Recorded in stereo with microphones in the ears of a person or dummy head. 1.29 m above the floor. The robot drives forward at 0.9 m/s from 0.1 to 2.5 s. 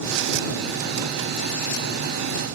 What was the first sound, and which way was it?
Only background noise.